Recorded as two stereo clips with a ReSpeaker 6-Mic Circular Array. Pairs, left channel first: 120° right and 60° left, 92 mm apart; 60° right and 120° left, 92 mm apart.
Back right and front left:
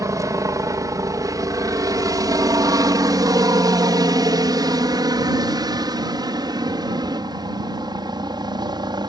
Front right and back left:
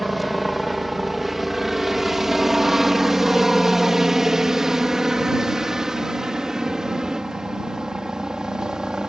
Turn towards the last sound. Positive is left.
turn(degrees=40)